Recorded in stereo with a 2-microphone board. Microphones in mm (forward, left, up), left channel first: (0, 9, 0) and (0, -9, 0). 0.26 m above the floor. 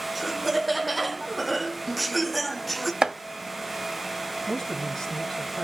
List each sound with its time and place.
0.1 s laughter: 15° right (ahead or behind), 1.0 m; by 2.9 s 10° left (ahead or behind), 1.5 m
3.0 s chopping: 40° right (ahead or behind), 0.7 m
4.5 s a man speaking: 40° left (ahead or behind), 1.8 m